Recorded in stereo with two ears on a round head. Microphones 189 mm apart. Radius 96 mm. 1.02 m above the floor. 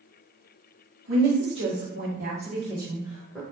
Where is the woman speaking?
60° right (ahead or behind), 1.2 m; by 3.4 s centre (ahead or behind), 1.0 m.